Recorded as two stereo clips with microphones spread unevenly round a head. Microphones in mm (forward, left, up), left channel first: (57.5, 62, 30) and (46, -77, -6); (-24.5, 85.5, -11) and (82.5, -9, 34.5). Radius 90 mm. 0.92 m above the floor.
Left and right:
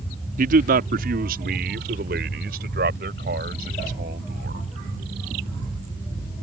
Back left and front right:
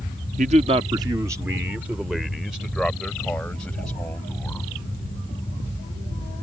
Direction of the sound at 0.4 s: 95° right.